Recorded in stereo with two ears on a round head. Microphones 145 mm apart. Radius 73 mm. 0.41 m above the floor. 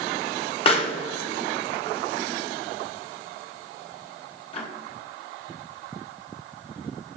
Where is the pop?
35° left (ahead or behind), 1.1 m.